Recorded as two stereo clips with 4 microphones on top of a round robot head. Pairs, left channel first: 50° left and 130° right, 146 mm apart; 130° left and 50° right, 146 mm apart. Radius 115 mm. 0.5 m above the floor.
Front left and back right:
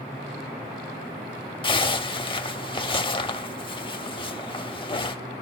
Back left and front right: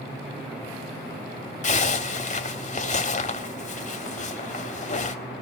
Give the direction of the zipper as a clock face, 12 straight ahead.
9 o'clock.